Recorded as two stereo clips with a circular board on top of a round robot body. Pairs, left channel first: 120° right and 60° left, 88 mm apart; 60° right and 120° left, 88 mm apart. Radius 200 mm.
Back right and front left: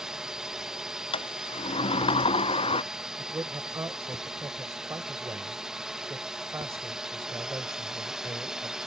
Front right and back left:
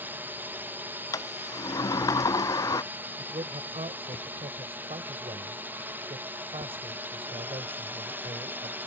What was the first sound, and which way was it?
A drone, 135° left.